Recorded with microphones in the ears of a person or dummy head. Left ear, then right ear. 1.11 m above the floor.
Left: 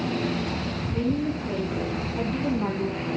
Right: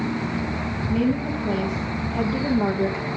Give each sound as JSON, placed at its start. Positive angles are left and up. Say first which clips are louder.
{"t": 0.9, "sound": "a woman speaking", "louder": "right 3 dB", "side_deg": -75, "distance_m": 2.5}